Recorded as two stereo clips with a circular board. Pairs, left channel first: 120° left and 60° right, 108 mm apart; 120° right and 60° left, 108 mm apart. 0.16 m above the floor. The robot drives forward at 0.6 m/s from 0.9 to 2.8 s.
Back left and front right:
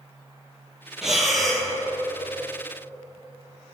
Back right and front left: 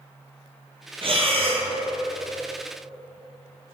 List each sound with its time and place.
1.0 s breathing: 25° left, 1.3 m; by 1.7 s 35° left, 1.0 m